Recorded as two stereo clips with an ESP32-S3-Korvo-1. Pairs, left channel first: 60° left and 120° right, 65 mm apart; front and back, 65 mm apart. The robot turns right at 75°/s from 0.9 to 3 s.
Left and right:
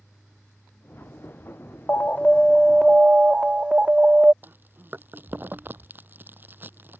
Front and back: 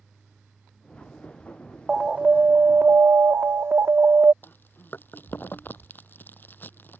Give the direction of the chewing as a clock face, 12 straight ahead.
2 o'clock.